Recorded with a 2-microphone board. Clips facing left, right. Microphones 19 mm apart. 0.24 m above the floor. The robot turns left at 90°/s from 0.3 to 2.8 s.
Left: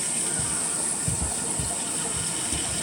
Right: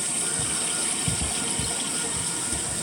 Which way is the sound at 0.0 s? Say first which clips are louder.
Right 1 dB; 10° right.